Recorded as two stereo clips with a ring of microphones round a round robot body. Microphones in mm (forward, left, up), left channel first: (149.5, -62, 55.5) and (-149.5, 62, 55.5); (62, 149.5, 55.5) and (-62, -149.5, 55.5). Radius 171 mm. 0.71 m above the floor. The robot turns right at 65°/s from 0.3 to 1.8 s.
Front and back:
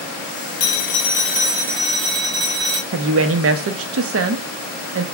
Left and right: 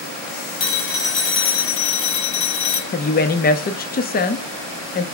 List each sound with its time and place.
0.6 s a phone ringing: 20° left, 2 m; by 2.8 s 100° left, 2 m
2.9 s a woman speaking: 125° left, 0.7 m